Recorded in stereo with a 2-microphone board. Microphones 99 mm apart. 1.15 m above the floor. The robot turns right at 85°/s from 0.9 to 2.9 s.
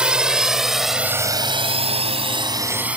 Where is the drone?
10° right (ahead or behind).